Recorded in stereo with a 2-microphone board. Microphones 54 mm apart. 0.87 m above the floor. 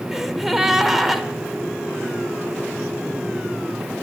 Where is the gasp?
5° right (ahead or behind), 0.8 m.